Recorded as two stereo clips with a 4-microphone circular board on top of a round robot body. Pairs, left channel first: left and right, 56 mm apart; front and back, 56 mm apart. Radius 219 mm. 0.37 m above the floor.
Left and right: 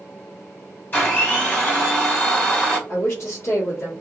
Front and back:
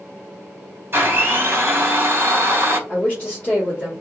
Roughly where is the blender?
Behind left.